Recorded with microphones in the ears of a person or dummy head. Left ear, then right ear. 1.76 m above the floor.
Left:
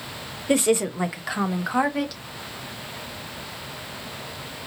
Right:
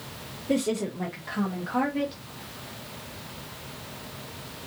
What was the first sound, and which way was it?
A woman speaking, 35° left (ahead or behind).